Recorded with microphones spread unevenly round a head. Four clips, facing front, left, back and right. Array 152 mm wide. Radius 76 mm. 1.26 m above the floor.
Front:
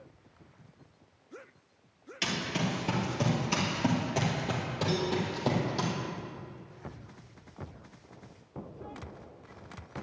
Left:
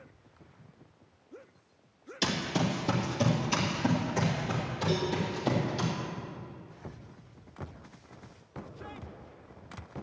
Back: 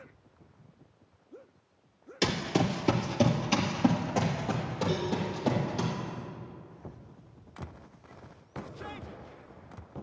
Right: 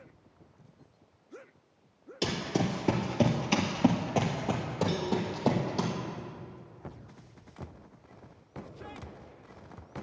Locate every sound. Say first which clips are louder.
2.2 s running footsteps: even, back 5 dB; 165° right, 1.5 m; by 5.9 s 75° right, 3 m
4.9 s a cowbell: left 2 dB, front 2 dB; 40° right, 4.5 m